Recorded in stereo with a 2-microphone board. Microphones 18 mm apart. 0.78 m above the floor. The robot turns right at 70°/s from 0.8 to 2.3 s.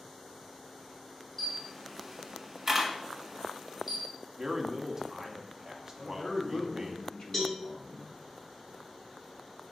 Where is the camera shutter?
20° left (ahead or behind), 1.1 m; by 4.1 s 20° right (ahead or behind), 1.1 m.